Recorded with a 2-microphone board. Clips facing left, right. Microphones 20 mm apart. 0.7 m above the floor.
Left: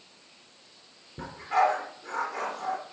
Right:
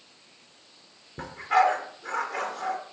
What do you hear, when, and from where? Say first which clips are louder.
1.2 s a dog barking: right 3 dB; 35° right (ahead or behind), 3.5 m